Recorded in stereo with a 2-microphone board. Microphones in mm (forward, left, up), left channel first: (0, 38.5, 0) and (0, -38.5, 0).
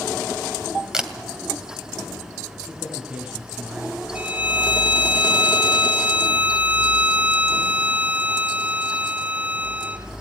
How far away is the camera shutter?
About 2 m.